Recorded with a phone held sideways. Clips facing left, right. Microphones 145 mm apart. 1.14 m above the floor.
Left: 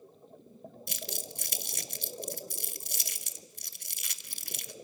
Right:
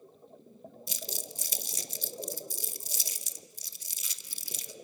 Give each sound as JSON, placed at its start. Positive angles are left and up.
{"t": 0.9, "sound": "crumpling", "side_deg": 65, "distance_m": 1.1}